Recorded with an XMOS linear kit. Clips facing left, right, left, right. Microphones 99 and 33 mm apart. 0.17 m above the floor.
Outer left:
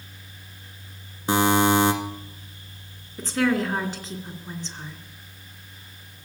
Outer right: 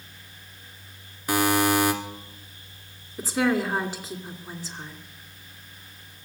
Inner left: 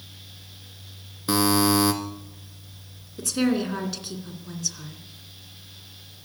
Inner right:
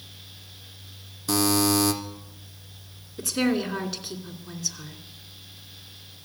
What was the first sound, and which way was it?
A buzzer, 25° left (ahead or behind).